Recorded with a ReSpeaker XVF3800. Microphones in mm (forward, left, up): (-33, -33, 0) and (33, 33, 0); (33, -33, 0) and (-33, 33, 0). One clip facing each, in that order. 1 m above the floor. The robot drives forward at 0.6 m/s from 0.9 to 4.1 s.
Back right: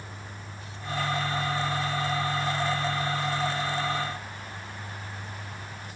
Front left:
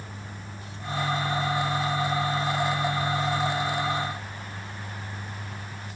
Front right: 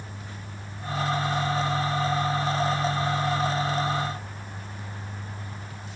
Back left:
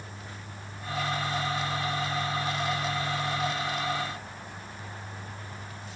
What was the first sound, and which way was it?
Only background noise.